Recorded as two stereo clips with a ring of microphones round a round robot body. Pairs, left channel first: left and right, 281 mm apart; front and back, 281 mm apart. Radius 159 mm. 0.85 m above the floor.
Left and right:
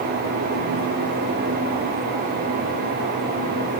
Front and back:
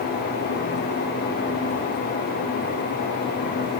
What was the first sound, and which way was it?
Only background noise.